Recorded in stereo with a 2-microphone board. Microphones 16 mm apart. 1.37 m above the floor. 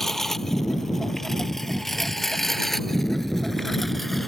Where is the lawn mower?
20° left (ahead or behind); by 4.3 s 10° left (ahead or behind).